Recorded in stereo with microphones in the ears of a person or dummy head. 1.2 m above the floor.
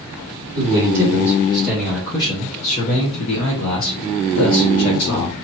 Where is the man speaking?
20° right (ahead or behind), 1.2 m; by 5.3 s 70° left (ahead or behind), 1.8 m.